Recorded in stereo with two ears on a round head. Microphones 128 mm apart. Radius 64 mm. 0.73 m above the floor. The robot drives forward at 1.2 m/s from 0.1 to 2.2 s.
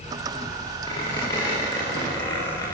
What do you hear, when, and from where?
0.9 s a squeak: 30° left (ahead or behind), 9.5 m; by 2.7 s 25° left (ahead or behind), 11 m